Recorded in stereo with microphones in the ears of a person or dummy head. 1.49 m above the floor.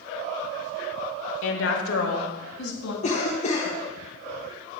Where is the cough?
35° left (ahead or behind), 0.8 m.